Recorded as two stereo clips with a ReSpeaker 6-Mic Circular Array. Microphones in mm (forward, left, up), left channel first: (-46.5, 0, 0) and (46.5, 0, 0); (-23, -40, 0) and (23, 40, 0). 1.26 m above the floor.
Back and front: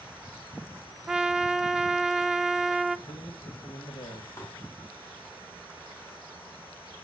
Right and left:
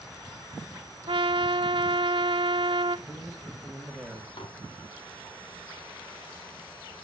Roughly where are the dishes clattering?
Behind right.